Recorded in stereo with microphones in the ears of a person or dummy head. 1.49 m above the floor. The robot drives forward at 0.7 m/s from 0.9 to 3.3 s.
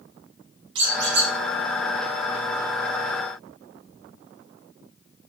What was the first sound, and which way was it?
A squeak, 60° right (ahead or behind).